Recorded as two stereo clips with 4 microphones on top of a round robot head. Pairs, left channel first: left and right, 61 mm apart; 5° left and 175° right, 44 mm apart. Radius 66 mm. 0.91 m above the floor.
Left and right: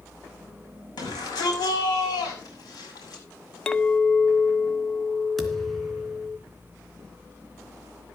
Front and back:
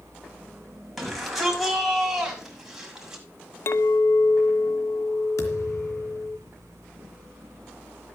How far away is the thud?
About 3 m.